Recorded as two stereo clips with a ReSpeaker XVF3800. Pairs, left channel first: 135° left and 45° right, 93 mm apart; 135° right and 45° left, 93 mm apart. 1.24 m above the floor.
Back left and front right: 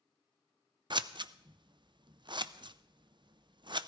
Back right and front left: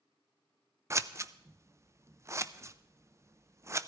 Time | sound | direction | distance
0.9 | scissors | 10° right | 0.5 m